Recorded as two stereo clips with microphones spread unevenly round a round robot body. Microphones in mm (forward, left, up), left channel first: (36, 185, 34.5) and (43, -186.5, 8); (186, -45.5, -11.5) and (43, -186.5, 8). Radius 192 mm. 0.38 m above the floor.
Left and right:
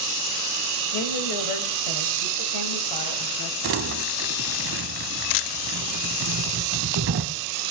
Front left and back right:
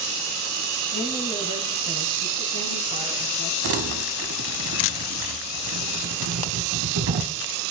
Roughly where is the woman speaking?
Behind left.